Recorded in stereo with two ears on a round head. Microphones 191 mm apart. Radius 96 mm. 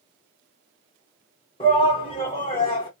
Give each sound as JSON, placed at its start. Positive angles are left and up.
{"t": 1.6, "sound": "a shout", "side_deg": 25, "distance_m": 1.2}